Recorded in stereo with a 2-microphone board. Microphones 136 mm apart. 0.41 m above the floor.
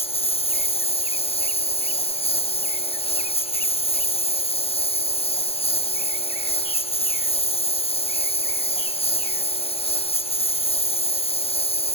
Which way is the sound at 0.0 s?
45° left (ahead or behind).